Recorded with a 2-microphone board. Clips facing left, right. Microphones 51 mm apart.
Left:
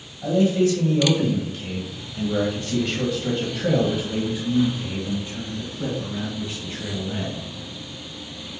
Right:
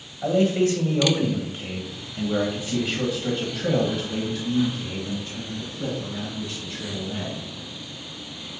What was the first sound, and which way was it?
A man speaking, 45° right (ahead or behind).